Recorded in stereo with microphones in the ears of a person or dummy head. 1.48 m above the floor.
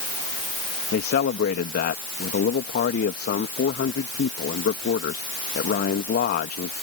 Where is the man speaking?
40° left (ahead or behind).